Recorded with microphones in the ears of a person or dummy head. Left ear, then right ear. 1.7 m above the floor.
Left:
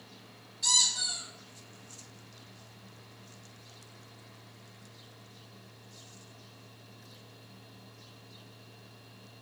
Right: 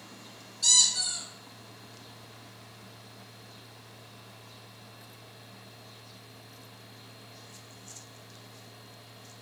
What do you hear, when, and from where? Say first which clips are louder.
0.6 s a squeak: right 3 dB; 15° right (ahead or behind), 1.7 m